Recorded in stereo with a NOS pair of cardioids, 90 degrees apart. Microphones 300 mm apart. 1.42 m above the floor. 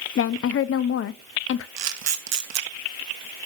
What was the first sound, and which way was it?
A woman speaking, 50° left.